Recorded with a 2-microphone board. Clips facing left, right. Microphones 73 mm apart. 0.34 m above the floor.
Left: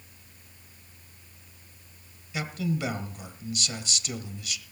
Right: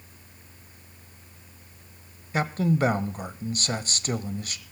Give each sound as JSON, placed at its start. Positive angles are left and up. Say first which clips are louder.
{"t": 2.3, "sound": "a man speaking", "louder": "right 6 dB", "side_deg": -45, "distance_m": 1.2}